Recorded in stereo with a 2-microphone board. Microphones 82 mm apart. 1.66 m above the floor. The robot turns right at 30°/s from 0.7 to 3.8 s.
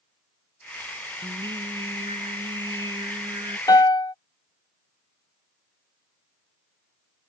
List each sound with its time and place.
1.2 s singing: 115° right; by 3.6 s 40° right
3.7 s a piano: 50° left (ahead or behind); by 4.2 s 55° left (ahead or behind)